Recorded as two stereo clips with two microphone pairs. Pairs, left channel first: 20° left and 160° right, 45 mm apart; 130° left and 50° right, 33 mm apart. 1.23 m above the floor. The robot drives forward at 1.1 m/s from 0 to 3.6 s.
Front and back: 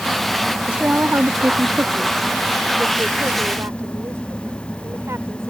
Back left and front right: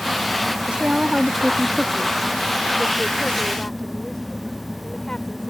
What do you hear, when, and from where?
0.7 s a woman speaking: 95° right; by 5.5 s 165° right